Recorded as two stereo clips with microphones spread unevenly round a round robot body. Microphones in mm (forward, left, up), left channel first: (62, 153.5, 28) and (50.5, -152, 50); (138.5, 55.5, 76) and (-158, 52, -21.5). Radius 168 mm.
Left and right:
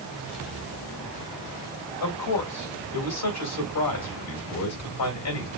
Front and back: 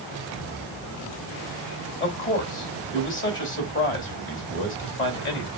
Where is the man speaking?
50° left, 3.5 m.